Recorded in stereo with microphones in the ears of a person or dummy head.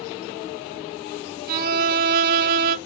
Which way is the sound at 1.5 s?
50° right (ahead or behind).